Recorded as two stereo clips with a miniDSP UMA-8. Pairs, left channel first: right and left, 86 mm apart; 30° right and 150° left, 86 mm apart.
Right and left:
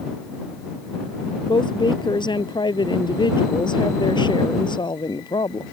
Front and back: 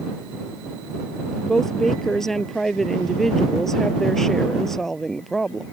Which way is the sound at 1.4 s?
115° right.